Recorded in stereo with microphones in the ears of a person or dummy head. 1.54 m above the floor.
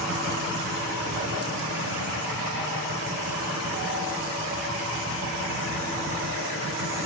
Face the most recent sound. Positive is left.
No sound to turn to.